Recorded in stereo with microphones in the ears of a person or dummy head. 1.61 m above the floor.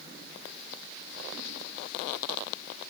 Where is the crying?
No crying in this recording.